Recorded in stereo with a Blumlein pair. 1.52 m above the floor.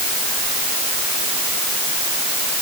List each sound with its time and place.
Only background noise.